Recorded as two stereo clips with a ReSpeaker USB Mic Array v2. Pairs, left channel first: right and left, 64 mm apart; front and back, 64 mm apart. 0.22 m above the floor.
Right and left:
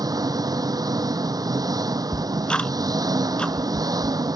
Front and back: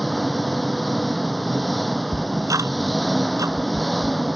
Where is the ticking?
165° right.